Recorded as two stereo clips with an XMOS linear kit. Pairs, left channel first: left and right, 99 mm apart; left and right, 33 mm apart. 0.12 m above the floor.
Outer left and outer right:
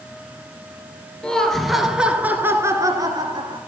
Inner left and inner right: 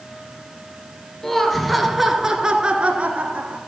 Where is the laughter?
10° left (ahead or behind), 2.5 m; by 3.6 s 50° right (ahead or behind), 2.5 m.